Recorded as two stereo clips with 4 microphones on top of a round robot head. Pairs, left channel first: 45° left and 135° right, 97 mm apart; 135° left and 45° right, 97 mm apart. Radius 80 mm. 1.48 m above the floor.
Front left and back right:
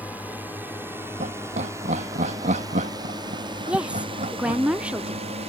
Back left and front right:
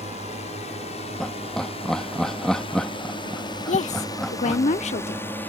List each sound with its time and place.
0.0 s a drone: 150° left; by 5.5 s 155° right
1.2 s laughter: 140° right
3.7 s a woman speaking: 145° left